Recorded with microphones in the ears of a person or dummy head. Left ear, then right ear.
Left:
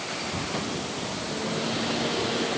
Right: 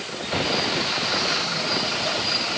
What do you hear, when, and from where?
Only background noise.